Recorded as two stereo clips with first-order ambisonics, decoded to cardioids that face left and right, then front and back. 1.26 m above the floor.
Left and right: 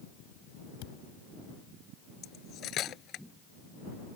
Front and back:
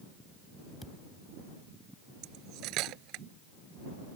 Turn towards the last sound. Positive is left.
turn(degrees=140)